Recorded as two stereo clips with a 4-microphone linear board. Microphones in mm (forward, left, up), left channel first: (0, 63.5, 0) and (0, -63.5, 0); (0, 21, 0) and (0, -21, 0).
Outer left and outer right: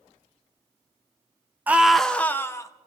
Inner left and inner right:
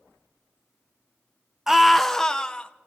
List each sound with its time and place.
1.7 s a scream: 15° right (ahead or behind), 0.5 m; by 2.7 s 25° left (ahead or behind), 0.8 m